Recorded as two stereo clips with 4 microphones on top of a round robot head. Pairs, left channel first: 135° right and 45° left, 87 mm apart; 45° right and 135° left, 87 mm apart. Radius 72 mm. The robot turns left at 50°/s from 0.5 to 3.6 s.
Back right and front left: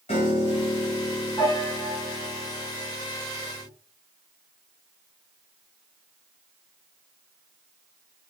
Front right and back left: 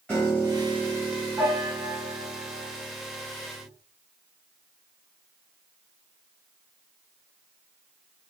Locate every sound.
0.1 s a piano: 125° right, 1.7 m; by 3.7 s 80° left, 1.7 m